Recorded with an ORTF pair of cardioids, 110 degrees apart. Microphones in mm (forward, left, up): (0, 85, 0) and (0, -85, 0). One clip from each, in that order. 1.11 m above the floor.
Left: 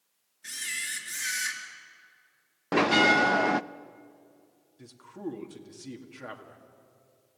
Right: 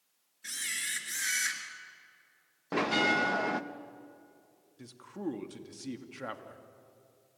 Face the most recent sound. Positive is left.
turn(degrees=-15)